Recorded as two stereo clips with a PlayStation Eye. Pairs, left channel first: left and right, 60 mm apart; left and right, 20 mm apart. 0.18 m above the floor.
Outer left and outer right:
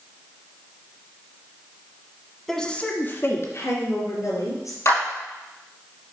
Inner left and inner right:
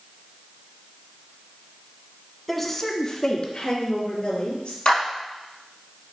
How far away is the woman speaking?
About 1.2 m.